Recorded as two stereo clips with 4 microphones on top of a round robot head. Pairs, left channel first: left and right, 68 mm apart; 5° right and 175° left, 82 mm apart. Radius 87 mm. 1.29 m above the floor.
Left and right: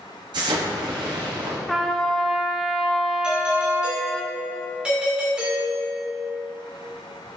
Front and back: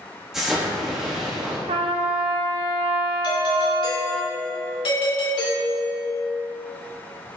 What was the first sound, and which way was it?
An explosion, 95° right.